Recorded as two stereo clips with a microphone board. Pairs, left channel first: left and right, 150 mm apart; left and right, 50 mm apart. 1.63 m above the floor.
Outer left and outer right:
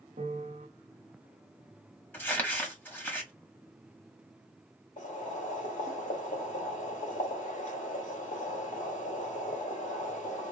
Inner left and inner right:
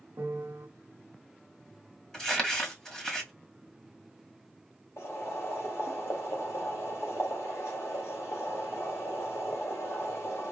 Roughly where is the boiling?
Left.